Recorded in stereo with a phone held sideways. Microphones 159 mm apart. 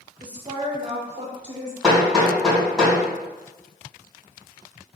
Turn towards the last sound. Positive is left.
turn(degrees=0)  # may be behind; listen again after turning